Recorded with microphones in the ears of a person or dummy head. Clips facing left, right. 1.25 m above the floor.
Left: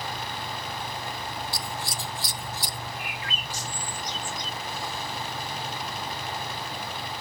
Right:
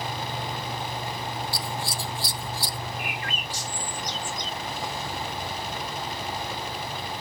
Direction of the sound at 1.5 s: 20° left (ahead or behind).